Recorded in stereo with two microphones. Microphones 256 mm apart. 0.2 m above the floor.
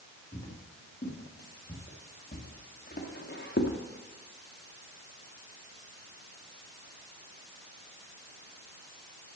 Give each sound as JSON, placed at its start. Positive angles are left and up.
{"t": 0.3, "sound": "footsteps", "side_deg": 30, "distance_m": 4.0}